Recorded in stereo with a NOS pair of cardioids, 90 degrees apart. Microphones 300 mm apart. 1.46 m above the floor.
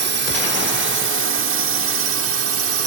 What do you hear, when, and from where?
0.0 s a drone: 35° right; by 2.9 s 50° right